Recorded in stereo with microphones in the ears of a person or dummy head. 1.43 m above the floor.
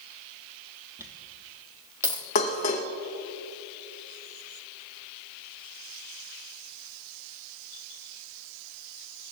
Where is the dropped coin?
15° right (ahead or behind), 1.4 m.